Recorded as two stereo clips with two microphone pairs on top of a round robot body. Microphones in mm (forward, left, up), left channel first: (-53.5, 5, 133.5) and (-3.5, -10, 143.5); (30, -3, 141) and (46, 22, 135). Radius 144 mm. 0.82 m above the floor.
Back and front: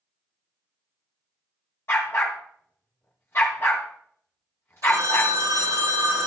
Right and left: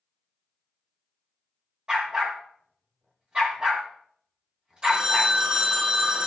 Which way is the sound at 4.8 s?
Straight ahead.